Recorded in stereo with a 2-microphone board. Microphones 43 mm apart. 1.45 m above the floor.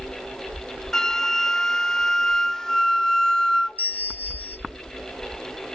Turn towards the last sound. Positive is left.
turn(degrees=40)  # may be behind; listen again after turning